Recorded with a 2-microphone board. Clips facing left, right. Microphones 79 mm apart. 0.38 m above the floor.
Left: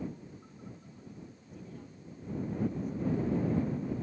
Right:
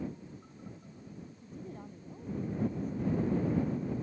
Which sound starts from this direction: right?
A woman speaking, at 1.4 s.